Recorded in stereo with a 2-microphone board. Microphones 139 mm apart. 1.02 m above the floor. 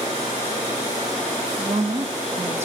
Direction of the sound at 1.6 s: 45° right (ahead or behind).